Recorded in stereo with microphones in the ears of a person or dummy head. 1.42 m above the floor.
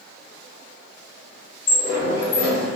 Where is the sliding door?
45° left (ahead or behind), 1.3 m.